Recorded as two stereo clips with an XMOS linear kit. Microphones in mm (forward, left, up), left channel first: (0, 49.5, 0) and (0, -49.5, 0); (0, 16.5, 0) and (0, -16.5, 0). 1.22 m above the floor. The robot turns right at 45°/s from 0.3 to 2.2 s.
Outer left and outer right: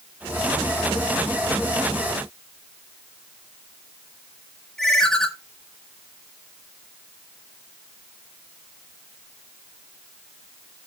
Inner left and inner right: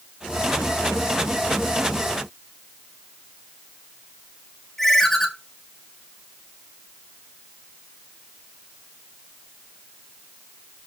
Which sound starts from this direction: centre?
A ringtone, at 4.8 s.